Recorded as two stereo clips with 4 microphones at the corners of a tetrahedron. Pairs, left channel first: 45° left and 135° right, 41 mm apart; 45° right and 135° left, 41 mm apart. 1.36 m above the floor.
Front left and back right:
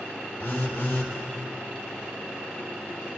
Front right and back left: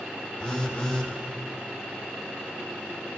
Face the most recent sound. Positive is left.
turn(degrees=25)